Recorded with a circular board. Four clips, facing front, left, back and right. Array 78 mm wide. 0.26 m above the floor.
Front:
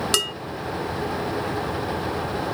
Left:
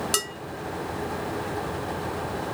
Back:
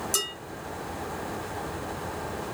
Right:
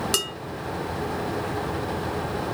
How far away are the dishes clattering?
About 1.1 m.